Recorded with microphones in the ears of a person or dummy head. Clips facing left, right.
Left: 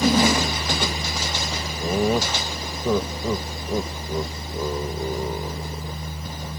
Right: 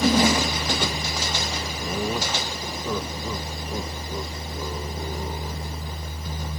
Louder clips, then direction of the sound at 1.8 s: Left 7 dB; 35° left (ahead or behind).